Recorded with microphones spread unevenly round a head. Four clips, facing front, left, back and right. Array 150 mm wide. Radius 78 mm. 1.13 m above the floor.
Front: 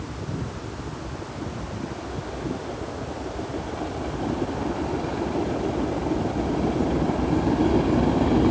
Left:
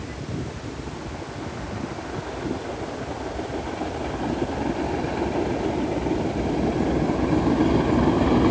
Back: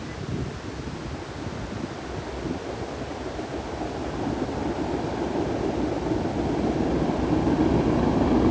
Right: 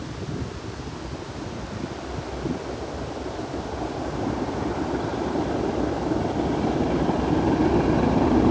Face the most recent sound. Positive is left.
No sound to turn to.